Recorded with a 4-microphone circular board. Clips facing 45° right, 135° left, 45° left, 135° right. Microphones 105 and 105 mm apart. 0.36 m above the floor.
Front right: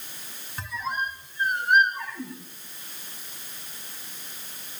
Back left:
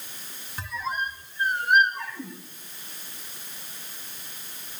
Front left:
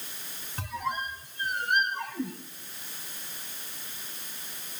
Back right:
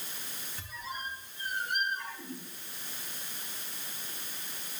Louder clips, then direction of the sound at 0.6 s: Even, front left 9 dB; 45° left.